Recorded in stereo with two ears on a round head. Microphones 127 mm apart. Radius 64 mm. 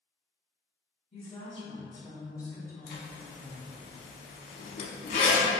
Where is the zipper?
55° left (ahead or behind), 0.6 m.